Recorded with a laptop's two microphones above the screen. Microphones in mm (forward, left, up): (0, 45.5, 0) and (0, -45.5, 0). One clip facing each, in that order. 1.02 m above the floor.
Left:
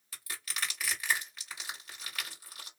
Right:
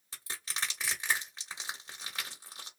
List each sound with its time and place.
0.1 s crushing: 25° right (ahead or behind), 1.1 m